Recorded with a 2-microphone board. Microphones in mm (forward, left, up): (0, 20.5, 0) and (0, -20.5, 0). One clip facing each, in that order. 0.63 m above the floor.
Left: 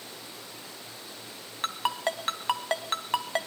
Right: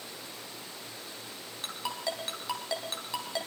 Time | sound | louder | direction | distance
1.6 | a ringtone | left 6 dB | 45° left (ahead or behind) | 2 m